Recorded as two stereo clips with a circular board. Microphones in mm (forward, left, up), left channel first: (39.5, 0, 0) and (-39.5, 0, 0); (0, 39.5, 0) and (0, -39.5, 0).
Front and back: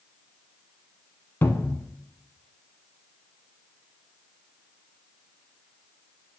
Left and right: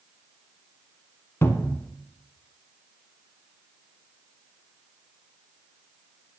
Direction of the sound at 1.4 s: 50° left.